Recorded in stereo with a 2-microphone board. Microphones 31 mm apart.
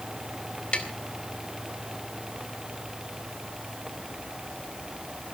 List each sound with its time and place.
0.7 s tapping: 40° left (ahead or behind), 2.5 m